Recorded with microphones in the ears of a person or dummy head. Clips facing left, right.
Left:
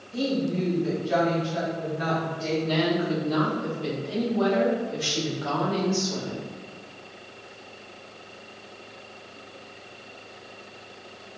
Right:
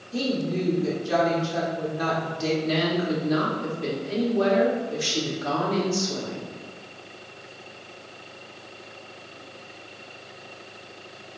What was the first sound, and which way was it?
A woman speaking, 50° right (ahead or behind).